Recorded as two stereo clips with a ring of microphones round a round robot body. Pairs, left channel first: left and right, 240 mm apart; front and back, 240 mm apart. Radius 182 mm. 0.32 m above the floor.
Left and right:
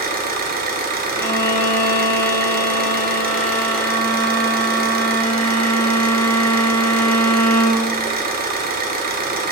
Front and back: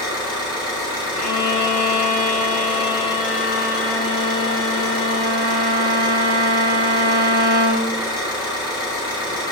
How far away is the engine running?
About 0.7 m.